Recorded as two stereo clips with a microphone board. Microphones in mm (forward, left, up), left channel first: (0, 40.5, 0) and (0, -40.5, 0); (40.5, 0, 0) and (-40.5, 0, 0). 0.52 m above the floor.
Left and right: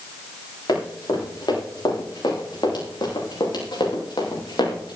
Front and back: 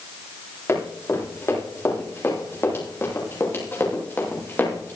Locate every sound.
0.7 s running footsteps: 55° left, 8 m; by 5.0 s 65° left, 5 m